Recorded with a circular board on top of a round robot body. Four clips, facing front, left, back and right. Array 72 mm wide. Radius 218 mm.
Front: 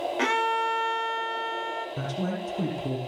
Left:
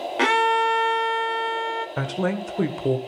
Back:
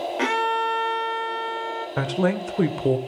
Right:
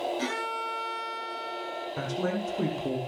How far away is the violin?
About 2 m.